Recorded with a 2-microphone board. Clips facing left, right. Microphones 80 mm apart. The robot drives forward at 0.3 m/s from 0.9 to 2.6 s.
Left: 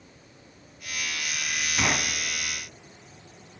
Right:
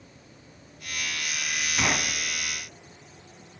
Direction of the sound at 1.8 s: 5° left (ahead or behind).